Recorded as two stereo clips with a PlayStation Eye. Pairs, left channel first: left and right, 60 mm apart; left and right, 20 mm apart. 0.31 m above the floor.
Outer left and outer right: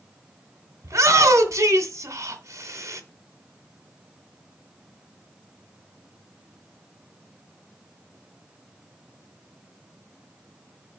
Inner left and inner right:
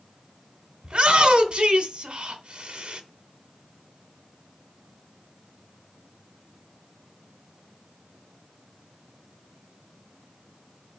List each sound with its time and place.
0.8 s a shout: 55° right (ahead or behind), 2.5 m